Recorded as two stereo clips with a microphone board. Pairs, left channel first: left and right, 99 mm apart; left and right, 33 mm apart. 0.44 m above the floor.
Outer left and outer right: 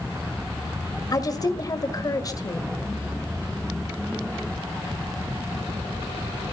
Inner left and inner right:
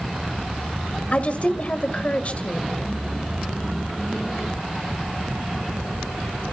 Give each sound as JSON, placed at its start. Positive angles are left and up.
{"t": 1.1, "sound": "a woman speaking", "side_deg": 40, "distance_m": 2.0}